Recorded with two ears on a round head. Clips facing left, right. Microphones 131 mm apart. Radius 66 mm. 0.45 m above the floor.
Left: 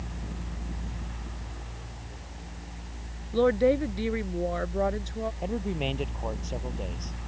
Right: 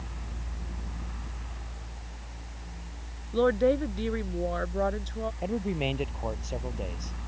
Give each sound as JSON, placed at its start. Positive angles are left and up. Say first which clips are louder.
{"t": 3.3, "sound": "a woman speaking", "louder": "left 1 dB", "side_deg": 5}
{"t": 5.4, "sound": "a man speaking", "louder": "right 3 dB", "side_deg": -5}